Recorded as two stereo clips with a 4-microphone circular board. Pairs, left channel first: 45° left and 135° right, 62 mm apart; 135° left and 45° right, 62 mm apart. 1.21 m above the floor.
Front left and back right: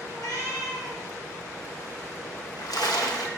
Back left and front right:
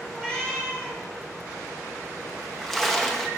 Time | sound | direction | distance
0.1 | a cat meowing | 55° left | 3.5 m
2.4 | a splash | 50° left | 0.9 m